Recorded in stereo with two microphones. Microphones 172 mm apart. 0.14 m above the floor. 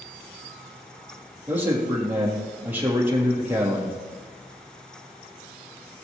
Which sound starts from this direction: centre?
A man speaking, at 1.5 s.